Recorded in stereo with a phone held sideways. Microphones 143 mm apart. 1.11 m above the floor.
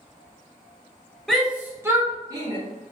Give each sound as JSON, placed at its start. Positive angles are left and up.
{"t": 1.3, "sound": "a shout", "side_deg": 0, "distance_m": 0.7}